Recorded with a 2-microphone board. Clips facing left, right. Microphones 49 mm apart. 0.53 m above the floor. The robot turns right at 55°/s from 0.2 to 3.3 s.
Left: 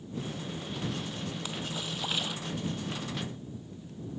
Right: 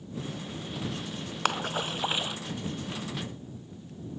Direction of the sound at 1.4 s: 55° right (ahead or behind).